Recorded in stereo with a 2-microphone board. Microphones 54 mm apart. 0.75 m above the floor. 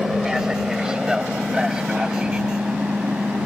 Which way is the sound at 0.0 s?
5° right (ahead or behind).